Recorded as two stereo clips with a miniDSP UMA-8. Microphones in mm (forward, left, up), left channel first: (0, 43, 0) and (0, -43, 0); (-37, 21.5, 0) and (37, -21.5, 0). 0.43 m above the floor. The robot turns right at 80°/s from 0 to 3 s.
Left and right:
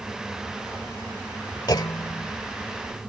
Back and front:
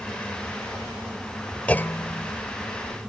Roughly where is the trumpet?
I don't hear a trumpet.